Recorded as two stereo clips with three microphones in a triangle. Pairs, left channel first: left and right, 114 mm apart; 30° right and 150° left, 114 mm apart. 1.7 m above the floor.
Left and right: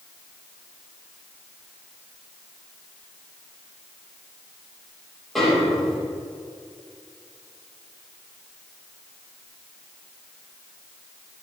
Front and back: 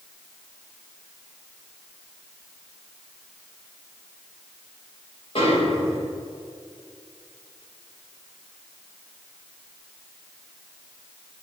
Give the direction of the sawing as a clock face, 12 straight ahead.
No sawing in this recording.